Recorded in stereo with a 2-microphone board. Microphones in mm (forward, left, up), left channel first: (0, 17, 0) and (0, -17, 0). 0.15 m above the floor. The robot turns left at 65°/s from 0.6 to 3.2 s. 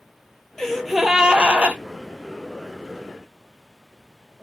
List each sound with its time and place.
0.6 s a gasp: 15° left, 0.5 m; by 1.8 s 65° right, 0.5 m